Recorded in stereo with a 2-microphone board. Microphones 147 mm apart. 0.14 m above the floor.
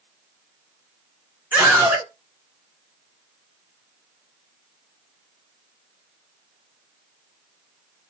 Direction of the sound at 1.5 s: 10° right (ahead or behind).